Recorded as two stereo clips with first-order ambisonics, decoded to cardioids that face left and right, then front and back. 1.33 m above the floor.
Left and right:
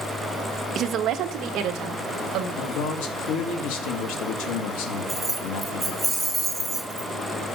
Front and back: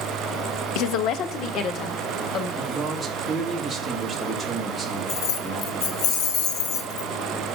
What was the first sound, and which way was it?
A woman speaking, 30° right.